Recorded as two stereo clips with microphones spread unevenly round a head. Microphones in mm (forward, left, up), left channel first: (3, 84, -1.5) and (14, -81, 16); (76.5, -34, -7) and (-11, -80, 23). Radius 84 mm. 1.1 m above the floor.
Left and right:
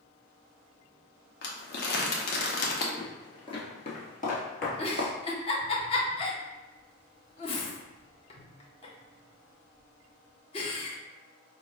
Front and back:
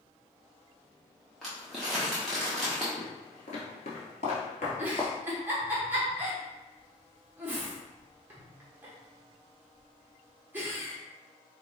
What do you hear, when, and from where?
1.4 s crumpling: 110° left, 0.8 m
3.0 s footsteps: 20° left, 1.3 m; by 5.1 s 80° left, 1.6 m
4.8 s a giggle: 120° left, 0.8 m